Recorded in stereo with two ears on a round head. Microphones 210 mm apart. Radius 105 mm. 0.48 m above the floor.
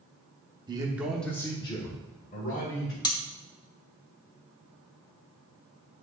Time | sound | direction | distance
0.7 | a man speaking | 20° right (ahead or behind) | 0.9 m
3.0 | cutlery clinking | 20° left (ahead or behind) | 0.8 m